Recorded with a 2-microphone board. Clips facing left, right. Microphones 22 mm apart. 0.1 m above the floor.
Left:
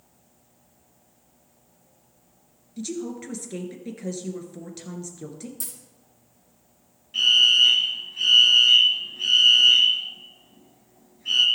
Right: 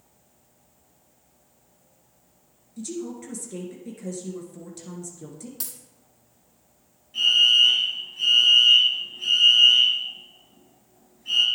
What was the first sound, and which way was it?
A woman speaking, 35° left (ahead or behind).